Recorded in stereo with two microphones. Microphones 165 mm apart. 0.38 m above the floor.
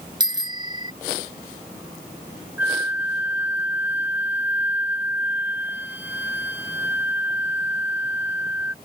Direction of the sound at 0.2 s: 25° right (ahead or behind).